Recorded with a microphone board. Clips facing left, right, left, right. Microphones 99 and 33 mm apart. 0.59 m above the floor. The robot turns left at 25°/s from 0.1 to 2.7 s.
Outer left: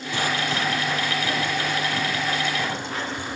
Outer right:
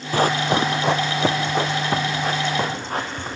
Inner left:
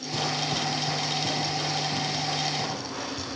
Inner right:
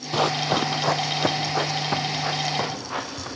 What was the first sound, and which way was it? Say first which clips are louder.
Running footsteps: outer right 7 dB, inner right 7 dB; 45° right (ahead or behind).